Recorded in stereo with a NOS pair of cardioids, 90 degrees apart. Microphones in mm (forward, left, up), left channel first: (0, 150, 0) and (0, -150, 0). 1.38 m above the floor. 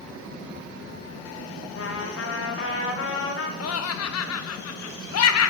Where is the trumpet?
45° left, 2.0 m.